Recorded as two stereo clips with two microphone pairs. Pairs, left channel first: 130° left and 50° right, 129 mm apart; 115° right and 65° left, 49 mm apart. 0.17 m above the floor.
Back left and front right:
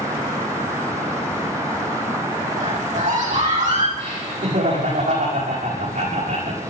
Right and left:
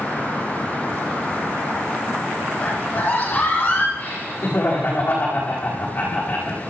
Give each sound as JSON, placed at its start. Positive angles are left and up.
{"t": 2.6, "sound": "a scream", "azimuth_deg": -55, "distance_m": 7.0}
{"t": 4.0, "sound": "laughter", "azimuth_deg": -60, "distance_m": 9.0}